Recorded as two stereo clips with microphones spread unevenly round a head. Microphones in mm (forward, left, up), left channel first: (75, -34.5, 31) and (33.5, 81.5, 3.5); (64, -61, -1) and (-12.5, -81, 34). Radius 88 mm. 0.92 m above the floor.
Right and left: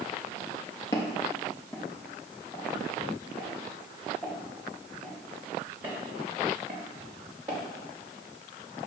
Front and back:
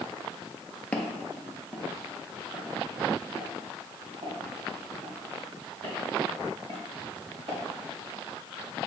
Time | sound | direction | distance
0.9 | footsteps | 90° right | 1.0 m